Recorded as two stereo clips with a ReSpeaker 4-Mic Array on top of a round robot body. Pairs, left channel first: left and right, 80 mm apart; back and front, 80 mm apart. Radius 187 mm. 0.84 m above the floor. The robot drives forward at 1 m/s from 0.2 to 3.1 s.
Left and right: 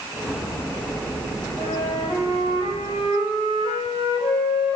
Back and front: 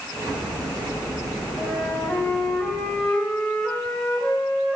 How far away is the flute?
About 4 m.